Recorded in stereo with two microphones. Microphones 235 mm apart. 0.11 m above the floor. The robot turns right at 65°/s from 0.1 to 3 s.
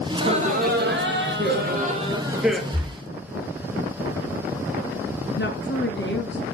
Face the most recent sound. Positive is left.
turn(degrees=50)  # may be behind; listen again after turning